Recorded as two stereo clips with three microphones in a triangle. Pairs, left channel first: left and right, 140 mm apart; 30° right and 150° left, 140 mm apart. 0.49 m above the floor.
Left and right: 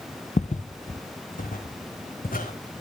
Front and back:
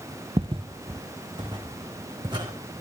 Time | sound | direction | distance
0.4 | footsteps | 110° left | 0.8 m